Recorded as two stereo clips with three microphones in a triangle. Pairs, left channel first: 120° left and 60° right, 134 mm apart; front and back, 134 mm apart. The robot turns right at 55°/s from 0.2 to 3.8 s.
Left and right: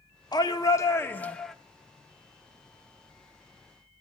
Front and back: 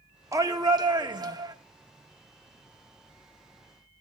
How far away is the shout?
About 1.1 m.